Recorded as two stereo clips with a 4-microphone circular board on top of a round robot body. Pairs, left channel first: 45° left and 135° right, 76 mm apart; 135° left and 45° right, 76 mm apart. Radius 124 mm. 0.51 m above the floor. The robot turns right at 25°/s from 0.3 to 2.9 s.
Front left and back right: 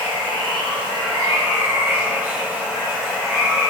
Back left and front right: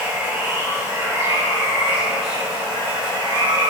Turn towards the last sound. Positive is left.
turn(degrees=-45)